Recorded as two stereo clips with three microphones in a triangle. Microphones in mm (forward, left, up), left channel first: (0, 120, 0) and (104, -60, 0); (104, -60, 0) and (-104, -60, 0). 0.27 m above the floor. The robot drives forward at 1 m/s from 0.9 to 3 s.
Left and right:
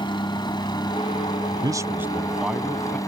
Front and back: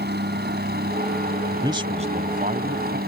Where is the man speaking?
115° right; by 3.0 s 155° right.